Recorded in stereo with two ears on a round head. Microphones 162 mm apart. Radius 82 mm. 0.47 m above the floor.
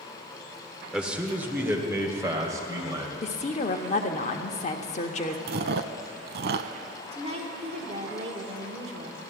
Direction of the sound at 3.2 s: 40° left (ahead or behind).